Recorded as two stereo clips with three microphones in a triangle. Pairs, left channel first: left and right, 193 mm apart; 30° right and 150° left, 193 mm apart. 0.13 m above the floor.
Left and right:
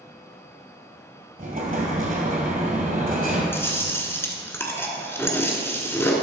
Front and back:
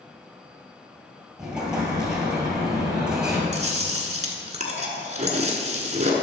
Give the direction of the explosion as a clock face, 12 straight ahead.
4 o'clock.